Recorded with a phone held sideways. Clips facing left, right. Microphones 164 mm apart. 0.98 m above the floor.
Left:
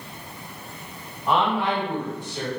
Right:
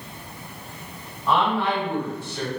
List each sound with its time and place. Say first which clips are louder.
1.3 s a woman speaking: even; 15° left (ahead or behind), 1.2 m